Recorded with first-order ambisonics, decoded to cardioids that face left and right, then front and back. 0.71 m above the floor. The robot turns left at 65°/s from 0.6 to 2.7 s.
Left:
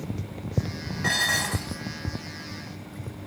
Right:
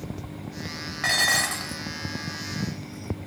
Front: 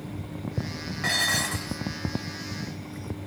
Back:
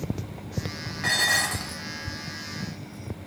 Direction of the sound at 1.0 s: 90° right.